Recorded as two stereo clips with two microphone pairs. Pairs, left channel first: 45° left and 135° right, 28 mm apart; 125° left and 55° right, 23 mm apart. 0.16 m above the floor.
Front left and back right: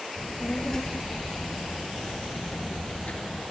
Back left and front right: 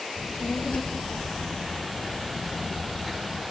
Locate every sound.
0.2 s a child speaking: 115° left, 3.5 m; by 3.4 s 15° left, 3 m